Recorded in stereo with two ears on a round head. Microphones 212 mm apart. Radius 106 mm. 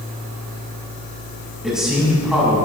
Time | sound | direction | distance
1.6 | a man speaking | centre (ahead or behind) | 6.5 m